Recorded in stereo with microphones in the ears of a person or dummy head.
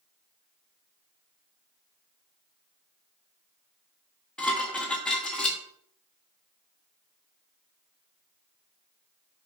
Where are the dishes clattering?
Centre (ahead or behind), 1.2 m.